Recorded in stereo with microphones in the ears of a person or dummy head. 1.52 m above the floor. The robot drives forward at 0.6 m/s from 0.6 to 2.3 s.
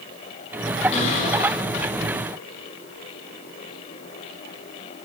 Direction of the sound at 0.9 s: 35° left (ahead or behind).